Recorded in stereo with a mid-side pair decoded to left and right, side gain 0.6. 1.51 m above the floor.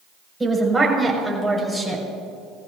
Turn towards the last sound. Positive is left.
turn(degrees=10)